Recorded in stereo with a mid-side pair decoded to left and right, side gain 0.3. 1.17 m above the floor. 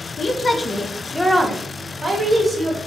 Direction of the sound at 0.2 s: 70° left.